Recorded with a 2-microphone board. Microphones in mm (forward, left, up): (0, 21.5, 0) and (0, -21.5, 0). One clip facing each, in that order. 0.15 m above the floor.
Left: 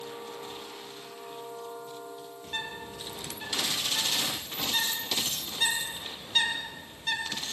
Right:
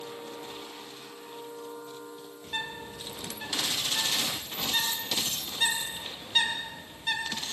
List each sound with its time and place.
2.4 s a bird: 10° right (ahead or behind), 3 m